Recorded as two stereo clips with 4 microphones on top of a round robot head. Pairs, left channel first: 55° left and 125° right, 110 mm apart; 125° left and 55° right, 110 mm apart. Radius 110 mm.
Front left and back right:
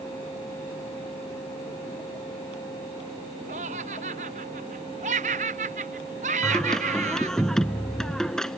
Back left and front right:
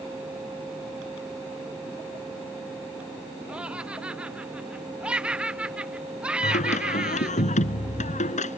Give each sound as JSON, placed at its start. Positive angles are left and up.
{"t": 3.5, "sound": "laughter", "azimuth_deg": -135}
{"t": 6.4, "sound": "singing", "azimuth_deg": 140}